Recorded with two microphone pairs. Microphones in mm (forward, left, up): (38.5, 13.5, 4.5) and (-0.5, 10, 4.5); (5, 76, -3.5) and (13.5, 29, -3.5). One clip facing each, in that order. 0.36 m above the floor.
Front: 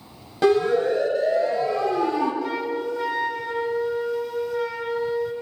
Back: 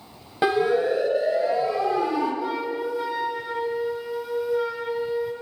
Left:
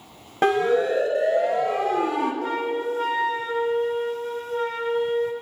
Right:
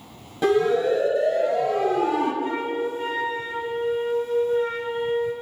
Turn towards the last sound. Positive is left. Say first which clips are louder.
# front 1 dB, even
turn(degrees=110)